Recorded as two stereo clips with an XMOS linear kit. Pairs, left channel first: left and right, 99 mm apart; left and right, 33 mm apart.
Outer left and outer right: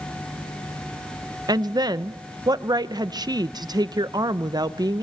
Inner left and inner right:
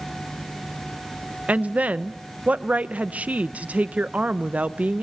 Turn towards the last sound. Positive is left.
turn(degrees=-45)  # may be behind; listen again after turning